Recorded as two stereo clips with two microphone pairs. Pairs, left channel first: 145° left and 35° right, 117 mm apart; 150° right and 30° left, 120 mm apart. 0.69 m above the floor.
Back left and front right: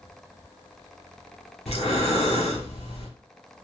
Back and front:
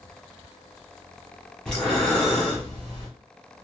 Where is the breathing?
125° left, 1.0 m.